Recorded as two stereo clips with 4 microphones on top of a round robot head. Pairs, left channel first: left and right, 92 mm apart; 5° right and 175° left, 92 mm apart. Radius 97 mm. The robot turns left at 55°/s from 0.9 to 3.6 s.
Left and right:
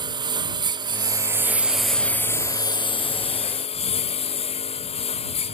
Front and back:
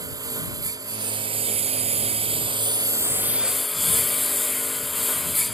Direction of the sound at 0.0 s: 130° right.